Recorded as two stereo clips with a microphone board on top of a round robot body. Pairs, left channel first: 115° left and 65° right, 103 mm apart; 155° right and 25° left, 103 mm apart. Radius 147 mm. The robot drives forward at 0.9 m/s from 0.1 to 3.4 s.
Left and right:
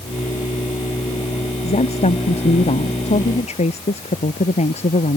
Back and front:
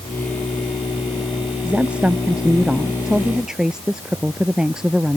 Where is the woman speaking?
100° left; by 5.2 s 105° left.